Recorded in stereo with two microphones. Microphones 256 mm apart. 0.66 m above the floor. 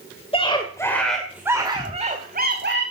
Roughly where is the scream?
Left.